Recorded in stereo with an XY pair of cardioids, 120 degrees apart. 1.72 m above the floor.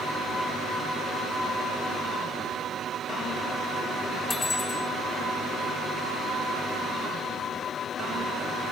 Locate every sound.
4.3 s cutlery clinking: 25° left